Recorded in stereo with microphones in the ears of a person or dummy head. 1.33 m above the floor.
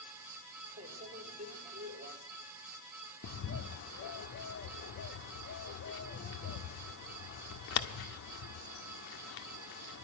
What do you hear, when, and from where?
0.8 s a microwave: 45° right (ahead or behind), 4 m
3.2 s a bird: 55° left (ahead or behind), 1.6 m